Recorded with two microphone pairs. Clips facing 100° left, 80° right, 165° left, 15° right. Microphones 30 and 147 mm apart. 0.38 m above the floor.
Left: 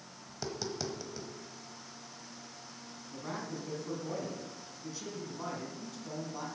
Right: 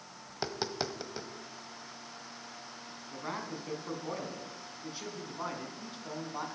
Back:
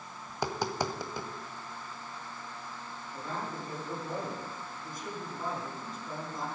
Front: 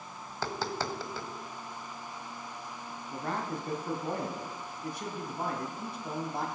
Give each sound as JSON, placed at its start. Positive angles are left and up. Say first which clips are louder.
{"t": 0.3, "sound": "tapping", "louder": "right 2 dB, back 2 dB", "azimuth_deg": -125, "distance_m": 1.0}
{"t": 3.1, "sound": "a man speaking", "louder": "right 1 dB, front 4 dB", "azimuth_deg": -20, "distance_m": 2.5}